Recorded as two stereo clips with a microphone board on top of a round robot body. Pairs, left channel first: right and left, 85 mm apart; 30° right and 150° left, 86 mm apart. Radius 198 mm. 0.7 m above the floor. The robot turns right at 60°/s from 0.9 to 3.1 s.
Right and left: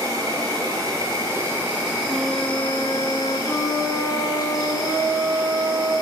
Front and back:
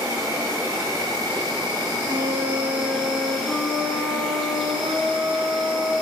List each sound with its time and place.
0.0 s an insect: 105° left, 1.9 m; by 6.0 s 120° right, 1.9 m
2.1 s a flute: 160° left, 0.7 m; by 5.9 s 140° right, 0.7 m